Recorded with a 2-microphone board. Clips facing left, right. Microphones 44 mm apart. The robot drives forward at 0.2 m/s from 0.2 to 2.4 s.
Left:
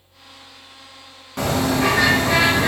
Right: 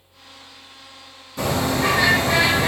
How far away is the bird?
About 1.1 m.